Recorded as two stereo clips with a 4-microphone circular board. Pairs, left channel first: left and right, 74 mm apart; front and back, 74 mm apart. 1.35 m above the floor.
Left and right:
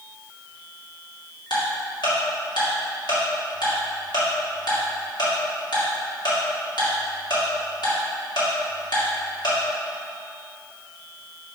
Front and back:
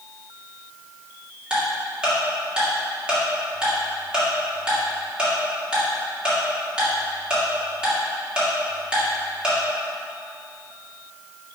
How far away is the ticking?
About 2.5 m.